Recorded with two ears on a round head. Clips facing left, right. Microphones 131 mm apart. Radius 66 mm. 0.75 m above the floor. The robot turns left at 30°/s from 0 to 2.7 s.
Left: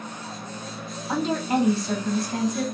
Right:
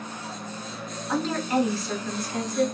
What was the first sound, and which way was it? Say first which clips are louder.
A woman speaking: left 1 dB; 165° left.